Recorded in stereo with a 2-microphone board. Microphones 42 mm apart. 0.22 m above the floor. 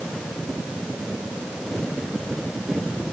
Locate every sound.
Only background noise.